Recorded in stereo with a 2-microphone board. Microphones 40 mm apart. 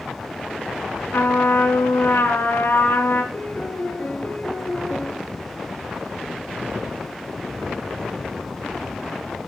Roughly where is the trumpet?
Left.